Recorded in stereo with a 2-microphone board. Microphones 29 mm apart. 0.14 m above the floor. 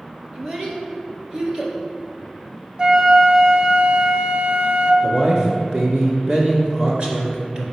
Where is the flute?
35° right (ahead or behind), 0.8 m.